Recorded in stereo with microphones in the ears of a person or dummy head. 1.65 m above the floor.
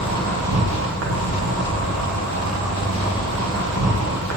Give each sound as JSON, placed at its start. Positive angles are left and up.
{"t": 0.0, "sound": "an insect", "side_deg": -85, "distance_m": 0.9}